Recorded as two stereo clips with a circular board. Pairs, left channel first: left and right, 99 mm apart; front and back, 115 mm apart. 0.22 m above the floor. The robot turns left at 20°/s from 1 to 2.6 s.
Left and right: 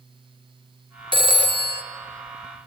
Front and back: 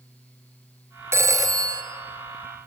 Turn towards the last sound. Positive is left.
turn(degrees=-145)